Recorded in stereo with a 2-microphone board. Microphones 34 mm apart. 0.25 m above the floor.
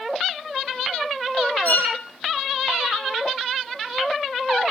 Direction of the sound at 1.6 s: 60° left (ahead or behind).